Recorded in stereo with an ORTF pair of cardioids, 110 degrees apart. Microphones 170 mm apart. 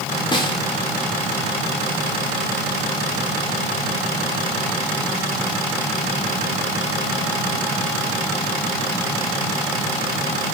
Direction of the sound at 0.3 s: 25° left.